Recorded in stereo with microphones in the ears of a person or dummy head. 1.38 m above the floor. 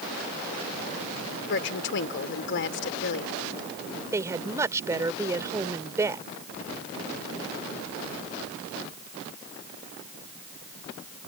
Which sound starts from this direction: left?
A woman speaking, at 1.5 s.